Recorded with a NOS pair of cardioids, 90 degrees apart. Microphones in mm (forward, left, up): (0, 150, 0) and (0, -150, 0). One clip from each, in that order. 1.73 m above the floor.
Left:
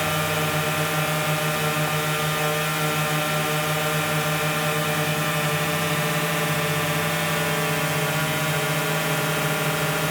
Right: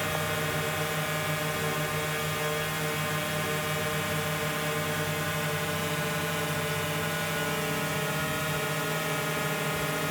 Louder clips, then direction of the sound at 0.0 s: Left 6 dB; 50° left.